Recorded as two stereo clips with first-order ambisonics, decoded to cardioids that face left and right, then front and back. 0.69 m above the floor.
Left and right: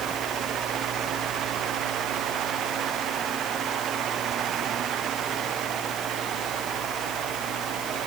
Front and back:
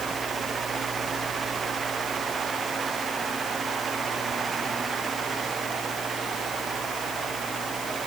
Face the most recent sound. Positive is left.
No sound to turn to.